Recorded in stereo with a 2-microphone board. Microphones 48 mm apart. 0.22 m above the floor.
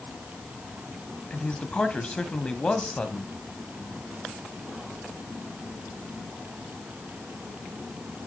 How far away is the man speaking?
About 1.2 m.